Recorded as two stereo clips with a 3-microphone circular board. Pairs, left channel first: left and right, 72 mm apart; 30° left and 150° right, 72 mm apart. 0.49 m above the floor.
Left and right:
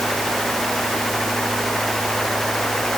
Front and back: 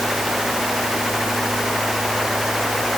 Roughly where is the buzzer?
I don't hear a buzzer.